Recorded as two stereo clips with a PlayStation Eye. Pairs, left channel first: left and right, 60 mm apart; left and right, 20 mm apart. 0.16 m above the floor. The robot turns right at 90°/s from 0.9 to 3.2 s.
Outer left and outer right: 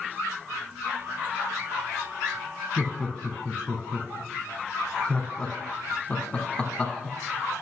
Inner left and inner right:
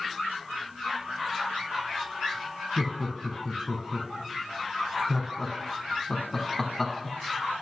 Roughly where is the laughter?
Centre.